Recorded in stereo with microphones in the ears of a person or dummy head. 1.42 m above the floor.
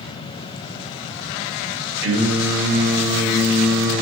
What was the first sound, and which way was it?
Singing, 60° right (ahead or behind).